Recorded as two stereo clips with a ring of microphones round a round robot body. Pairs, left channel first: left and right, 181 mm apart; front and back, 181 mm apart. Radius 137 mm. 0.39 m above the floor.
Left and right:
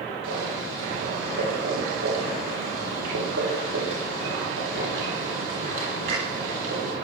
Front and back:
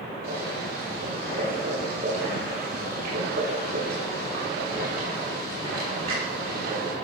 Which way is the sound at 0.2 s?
125° right.